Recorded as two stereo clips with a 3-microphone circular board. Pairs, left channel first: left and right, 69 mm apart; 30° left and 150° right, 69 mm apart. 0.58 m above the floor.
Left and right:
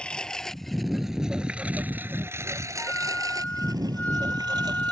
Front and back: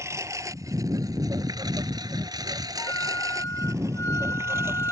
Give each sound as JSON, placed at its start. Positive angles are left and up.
{"t": 0.0, "sound": "a lawn mower", "azimuth_deg": 165}
{"t": 2.8, "sound": "a flute", "azimuth_deg": 35}